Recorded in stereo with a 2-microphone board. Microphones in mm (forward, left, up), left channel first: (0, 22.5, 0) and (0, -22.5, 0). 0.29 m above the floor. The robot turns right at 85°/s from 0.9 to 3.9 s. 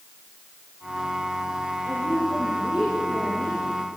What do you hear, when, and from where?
1.9 s a woman speaking: 100° right, 8 m; by 3.6 s 50° left, 8 m